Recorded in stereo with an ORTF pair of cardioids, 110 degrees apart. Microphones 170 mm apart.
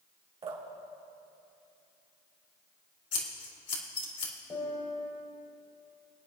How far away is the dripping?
About 2.5 m.